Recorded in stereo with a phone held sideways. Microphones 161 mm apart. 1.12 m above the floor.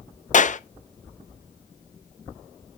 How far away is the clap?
About 0.5 m.